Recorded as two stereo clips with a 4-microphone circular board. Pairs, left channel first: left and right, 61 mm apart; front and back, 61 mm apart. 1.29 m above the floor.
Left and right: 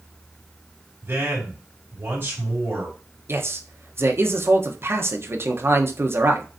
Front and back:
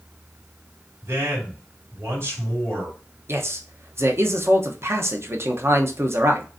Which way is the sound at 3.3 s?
135° right.